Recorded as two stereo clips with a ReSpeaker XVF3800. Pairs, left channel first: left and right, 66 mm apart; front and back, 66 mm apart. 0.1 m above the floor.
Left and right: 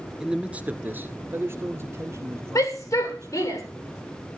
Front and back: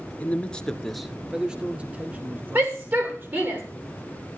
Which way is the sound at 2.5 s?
125° left.